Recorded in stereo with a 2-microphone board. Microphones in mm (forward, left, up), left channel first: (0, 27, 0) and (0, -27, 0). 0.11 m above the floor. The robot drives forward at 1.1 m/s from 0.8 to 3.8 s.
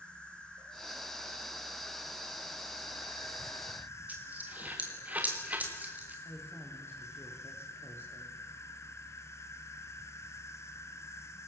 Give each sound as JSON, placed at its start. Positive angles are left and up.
{"t": 0.0, "sound": "an insect", "side_deg": 20, "distance_m": 3.5}
{"t": 4.1, "sound": "a dropped coin", "side_deg": -30, "distance_m": 4.0}
{"t": 6.2, "sound": "a woman speaking", "side_deg": 45, "distance_m": 6.0}